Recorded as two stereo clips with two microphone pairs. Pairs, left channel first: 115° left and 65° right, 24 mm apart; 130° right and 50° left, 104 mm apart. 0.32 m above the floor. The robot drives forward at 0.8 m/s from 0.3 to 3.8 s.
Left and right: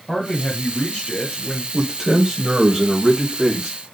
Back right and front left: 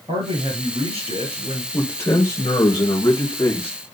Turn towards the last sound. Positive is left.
turn(degrees=-165)